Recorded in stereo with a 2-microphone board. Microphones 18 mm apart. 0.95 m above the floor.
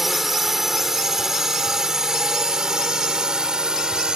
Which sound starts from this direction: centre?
A drone, at 0.0 s.